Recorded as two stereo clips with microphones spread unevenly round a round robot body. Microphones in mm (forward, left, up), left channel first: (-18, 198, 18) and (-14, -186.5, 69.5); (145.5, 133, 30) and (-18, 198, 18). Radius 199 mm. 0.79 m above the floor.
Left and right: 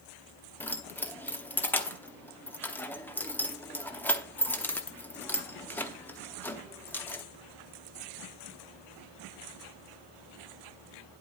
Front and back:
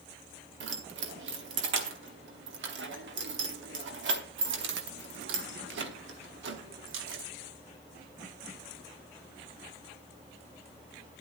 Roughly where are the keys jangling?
Behind.